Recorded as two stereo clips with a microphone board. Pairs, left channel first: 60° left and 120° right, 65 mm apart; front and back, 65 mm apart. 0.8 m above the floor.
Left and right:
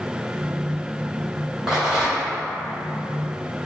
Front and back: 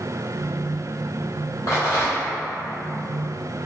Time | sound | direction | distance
1.7 | a rattle | 40° right | 1.3 m